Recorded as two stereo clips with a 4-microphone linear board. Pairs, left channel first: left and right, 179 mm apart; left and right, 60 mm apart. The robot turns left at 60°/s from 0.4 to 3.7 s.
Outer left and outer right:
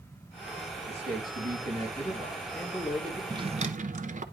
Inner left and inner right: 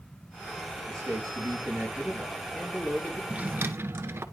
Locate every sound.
0.9 s a man speaking: 85° right, 4.5 m; by 3.2 s 135° left, 4.5 m
3.3 s a drawer: 20° right (ahead or behind), 0.9 m; by 4.2 s 45° right (ahead or behind), 0.9 m